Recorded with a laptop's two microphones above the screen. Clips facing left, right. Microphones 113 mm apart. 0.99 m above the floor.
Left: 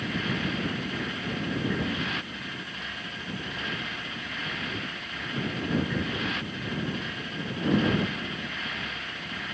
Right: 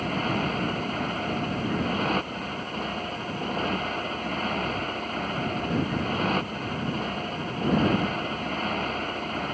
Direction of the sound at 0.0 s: 45° right (ahead or behind).